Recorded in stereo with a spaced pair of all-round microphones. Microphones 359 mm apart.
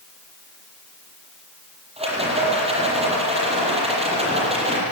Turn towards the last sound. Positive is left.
turn(degrees=-15)  # may be behind; listen again after turning